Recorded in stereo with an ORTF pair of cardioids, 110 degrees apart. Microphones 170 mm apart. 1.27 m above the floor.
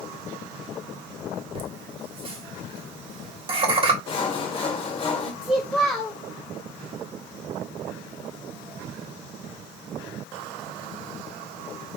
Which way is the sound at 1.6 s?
30° right.